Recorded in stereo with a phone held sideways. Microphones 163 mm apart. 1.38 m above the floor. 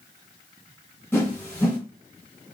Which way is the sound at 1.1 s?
15° left (ahead or behind).